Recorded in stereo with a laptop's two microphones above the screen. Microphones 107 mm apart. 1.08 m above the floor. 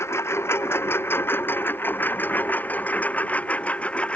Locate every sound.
0.0 s a lawn mower: 25° left (ahead or behind); by 4.2 s 10° left (ahead or behind)